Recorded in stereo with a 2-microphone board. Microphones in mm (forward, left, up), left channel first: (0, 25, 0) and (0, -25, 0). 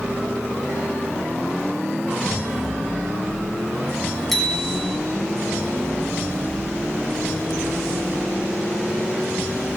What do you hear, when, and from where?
4.3 s a bicycle bell: centre (ahead or behind), 8 m